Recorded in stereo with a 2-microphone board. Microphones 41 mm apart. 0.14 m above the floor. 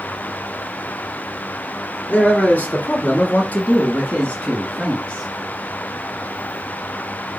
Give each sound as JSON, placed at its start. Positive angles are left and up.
{"t": 2.1, "sound": "a man speaking", "side_deg": 35, "distance_m": 2.5}